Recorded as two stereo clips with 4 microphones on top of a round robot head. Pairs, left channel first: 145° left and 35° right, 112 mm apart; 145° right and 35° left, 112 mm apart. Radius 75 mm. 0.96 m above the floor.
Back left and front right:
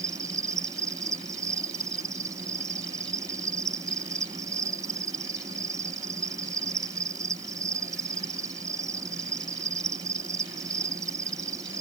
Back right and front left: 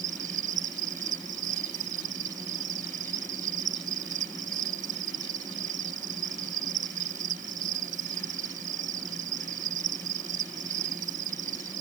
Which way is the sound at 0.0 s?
25° left.